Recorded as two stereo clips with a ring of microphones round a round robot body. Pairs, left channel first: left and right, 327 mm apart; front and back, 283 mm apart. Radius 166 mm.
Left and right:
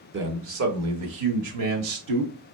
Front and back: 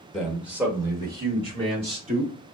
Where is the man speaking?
90° right, 1.0 m; by 2.3 s 110° right, 2 m.